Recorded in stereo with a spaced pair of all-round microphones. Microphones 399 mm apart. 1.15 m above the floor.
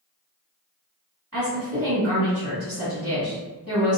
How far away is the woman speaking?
About 1.7 m.